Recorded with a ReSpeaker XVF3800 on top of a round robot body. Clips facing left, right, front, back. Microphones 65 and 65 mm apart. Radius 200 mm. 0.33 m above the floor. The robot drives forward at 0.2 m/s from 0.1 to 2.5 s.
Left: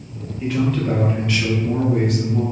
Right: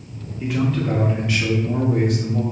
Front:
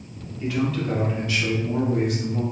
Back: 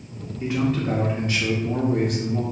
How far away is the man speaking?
About 0.9 m.